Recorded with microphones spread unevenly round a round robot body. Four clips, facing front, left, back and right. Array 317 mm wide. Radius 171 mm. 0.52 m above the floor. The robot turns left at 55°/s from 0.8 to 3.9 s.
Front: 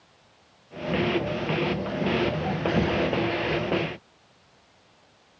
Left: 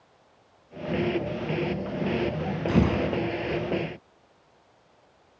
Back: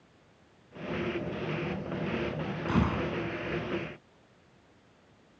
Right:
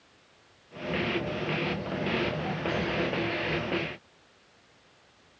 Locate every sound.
2.7 s a gunshot: 115° left; by 3.2 s 90° left